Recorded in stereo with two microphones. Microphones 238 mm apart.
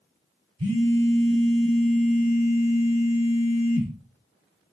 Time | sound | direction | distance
0.6 | a phone buzzing | 80° right | 1.1 m